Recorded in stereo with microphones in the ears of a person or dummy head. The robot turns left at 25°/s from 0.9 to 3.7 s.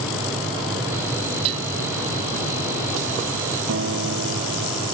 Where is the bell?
35° right (ahead or behind); by 1.7 s 40° right (ahead or behind).